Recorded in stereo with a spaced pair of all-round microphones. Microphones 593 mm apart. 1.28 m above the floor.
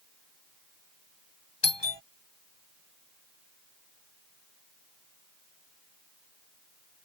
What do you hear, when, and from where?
1.6 s a doorbell: 45° left (ahead or behind)